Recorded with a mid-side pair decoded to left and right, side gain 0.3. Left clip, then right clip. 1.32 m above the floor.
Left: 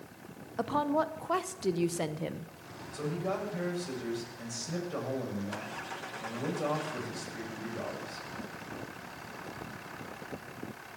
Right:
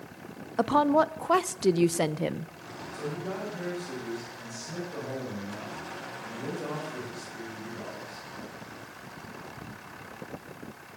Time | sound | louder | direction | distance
0.6 | a woman speaking | right 7 dB | 65° right | 0.5 m
2.9 | a man speaking | left 1 dB | 60° left | 7 m